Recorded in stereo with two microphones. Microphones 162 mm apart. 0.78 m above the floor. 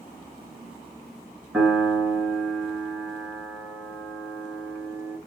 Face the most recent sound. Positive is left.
turn(degrees=-10)  # may be behind; listen again after turning